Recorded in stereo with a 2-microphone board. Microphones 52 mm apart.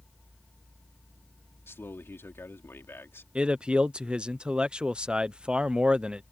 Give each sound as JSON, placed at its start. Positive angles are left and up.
{"t": 1.7, "sound": "a man speaking", "side_deg": 55}
{"t": 3.4, "sound": "a man speaking", "side_deg": -20}